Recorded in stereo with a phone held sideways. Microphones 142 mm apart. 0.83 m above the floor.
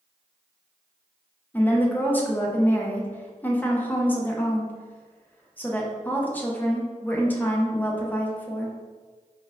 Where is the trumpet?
No trumpet in this recording.